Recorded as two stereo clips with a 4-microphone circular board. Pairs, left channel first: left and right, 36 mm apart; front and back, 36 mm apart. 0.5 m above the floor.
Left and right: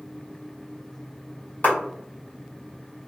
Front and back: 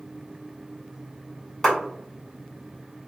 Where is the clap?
80° left, 1.7 m.